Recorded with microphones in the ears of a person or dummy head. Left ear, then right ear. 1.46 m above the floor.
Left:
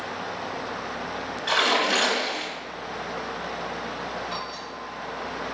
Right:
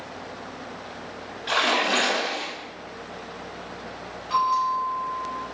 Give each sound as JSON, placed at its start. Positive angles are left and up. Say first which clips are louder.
{"t": 1.5, "sound": "a splash", "louder": "even", "side_deg": 0, "distance_m": 2.5}
{"t": 4.3, "sound": "a bell", "louder": "right 11 dB", "side_deg": -60, "distance_m": 3.0}